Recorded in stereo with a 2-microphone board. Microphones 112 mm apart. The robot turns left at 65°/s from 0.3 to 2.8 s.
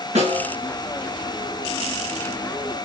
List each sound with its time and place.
0.1 s a snare drum: 85° right, 6 m; by 0.5 s 75° right (ahead or behind), 6 m